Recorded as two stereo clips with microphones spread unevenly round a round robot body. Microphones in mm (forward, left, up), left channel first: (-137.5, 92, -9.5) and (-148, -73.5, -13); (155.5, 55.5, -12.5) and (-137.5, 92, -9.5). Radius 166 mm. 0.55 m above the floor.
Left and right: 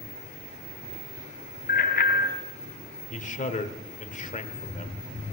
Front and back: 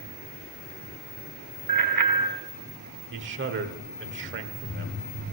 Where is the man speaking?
125° left, 1.5 m.